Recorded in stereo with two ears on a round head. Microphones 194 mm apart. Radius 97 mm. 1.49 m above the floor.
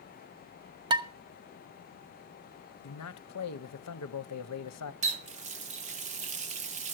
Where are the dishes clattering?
20° right (ahead or behind), 0.8 m.